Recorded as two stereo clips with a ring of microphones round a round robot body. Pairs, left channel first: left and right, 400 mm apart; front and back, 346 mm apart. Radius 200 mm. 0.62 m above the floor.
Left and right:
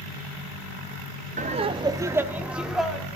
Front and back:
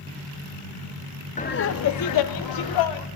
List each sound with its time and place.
1.4 s laughter: 45° right, 0.5 m; by 3.1 s straight ahead, 1.3 m